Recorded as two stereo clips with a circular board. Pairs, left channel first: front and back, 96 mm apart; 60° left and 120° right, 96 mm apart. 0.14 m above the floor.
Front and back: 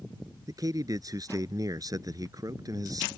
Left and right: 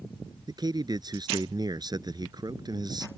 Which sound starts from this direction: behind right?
A man speaking, at 0.5 s.